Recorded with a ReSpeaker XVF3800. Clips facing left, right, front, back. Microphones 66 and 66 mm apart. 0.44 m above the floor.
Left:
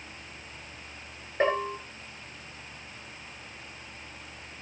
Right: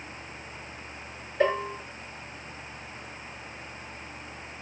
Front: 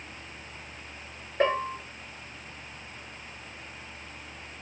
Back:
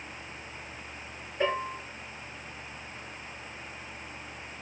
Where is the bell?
35° left, 9 m.